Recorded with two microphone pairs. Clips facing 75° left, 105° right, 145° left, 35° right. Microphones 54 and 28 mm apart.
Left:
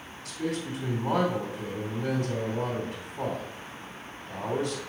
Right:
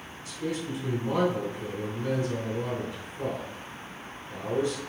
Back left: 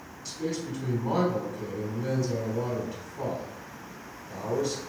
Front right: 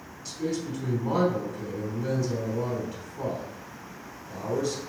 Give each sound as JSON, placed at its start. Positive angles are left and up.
{"t": 0.2, "sound": "a man speaking", "azimuth_deg": 50, "distance_m": 2.5}